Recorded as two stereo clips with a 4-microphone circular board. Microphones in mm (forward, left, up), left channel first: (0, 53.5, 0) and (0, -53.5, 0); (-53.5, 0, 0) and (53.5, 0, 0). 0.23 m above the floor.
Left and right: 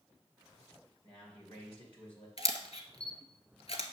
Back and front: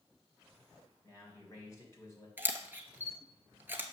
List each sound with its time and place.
1.0 s a man speaking: 120° left, 3 m
2.4 s a camera shutter: 70° left, 0.8 m